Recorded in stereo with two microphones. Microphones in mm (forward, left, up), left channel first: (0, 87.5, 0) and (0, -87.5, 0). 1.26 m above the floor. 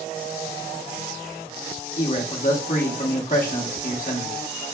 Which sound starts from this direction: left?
A man speaking, at 2.0 s.